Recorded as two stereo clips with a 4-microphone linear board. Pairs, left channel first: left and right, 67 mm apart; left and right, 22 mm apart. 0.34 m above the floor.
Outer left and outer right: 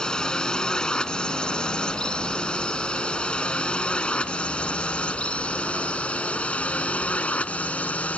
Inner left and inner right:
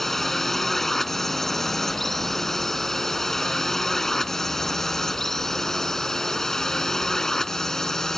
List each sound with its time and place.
0.0 s a drone: 10° left (ahead or behind); by 8.2 s 20° left (ahead or behind)